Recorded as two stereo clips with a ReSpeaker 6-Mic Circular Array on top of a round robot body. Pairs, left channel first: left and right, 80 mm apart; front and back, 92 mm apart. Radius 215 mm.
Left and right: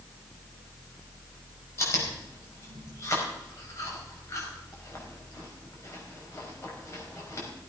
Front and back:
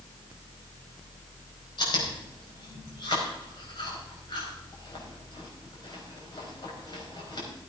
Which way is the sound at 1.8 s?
40° left.